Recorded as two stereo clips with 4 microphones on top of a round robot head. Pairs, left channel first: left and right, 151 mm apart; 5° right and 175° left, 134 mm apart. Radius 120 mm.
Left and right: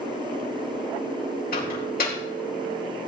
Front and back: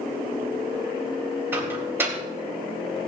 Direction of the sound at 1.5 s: 100° left.